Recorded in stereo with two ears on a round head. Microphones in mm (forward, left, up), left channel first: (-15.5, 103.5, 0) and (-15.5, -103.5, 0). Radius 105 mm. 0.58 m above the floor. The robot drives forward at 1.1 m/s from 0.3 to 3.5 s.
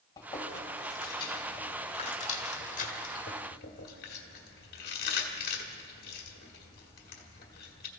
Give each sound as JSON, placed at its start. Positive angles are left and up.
{"t": 0.2, "sound": "chewing", "side_deg": 15, "distance_m": 4.5}